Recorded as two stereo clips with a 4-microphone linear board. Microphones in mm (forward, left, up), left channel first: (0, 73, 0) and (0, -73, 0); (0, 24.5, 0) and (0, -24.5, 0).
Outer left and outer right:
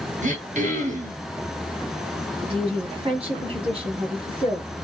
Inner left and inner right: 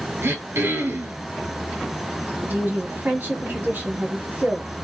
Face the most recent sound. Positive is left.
turn(degrees=-40)  # may be behind; listen again after turning